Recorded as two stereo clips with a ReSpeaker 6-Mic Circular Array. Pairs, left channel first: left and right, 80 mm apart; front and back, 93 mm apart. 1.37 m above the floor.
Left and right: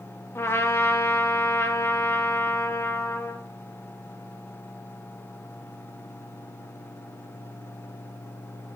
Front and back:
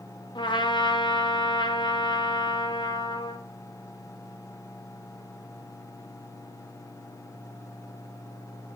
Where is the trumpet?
35° left, 2 m.